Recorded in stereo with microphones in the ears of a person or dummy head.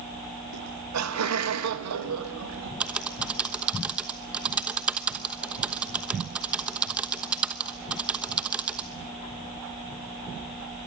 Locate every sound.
0.5 s laughter: 85° right, 2.5 m; by 2.7 s 70° right (ahead or behind), 3 m
2.8 s typing on a keyboard: 10° right (ahead or behind), 1.0 m